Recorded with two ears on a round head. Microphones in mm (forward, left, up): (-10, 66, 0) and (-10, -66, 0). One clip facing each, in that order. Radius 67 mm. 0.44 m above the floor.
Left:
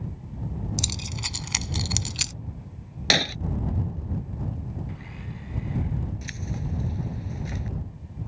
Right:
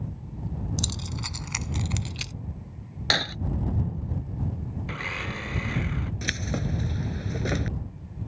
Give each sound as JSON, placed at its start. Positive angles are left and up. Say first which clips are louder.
{"t": 0.8, "sound": "keys jangling", "louder": "right 1 dB", "side_deg": 15}
{"t": 3.1, "sound": "breaking glass", "louder": "left 4 dB", "side_deg": 20}
{"t": 4.9, "sound": "a blender", "louder": "right 5 dB", "side_deg": -85}
{"t": 6.2, "sound": "keys jangling", "louder": "right 4 dB", "side_deg": -80}